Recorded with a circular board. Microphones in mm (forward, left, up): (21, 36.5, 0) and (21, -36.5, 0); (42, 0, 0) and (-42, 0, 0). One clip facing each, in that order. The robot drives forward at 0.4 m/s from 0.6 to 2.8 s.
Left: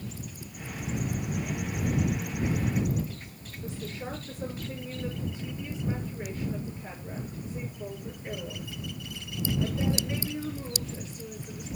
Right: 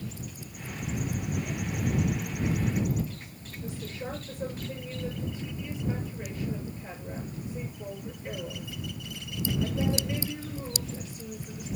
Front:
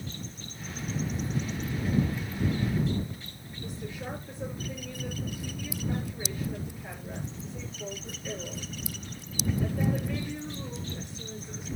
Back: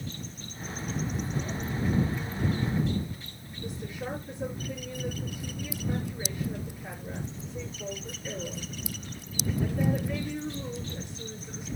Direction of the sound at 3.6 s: 135° left.